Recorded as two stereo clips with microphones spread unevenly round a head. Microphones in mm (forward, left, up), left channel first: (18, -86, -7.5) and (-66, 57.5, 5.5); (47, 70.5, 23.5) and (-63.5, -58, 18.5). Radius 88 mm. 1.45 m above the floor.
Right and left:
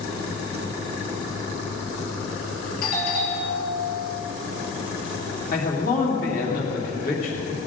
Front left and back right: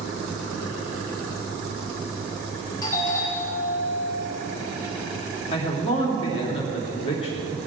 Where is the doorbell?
20° right, 3.5 m.